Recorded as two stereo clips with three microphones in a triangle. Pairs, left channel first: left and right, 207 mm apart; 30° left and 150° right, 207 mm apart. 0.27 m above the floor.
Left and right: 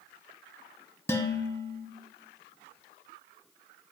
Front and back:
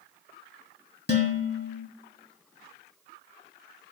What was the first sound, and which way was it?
Dishes clattering, 15° left.